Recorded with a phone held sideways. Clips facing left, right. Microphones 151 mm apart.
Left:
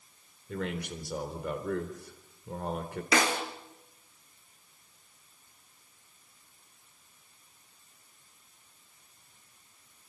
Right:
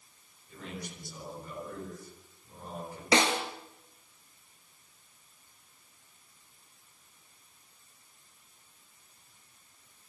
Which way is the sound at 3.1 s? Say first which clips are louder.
Right 1 dB; 25° right (ahead or behind).